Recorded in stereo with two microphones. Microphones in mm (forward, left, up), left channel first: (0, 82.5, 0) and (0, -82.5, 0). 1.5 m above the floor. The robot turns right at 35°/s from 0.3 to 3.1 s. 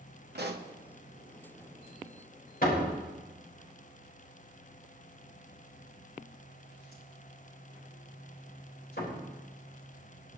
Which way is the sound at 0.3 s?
75° right (ahead or behind).